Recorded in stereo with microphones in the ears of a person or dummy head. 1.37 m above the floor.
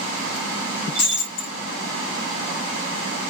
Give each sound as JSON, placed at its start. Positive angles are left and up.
{"t": 0.9, "sound": "breaking glass", "side_deg": 65, "distance_m": 1.5}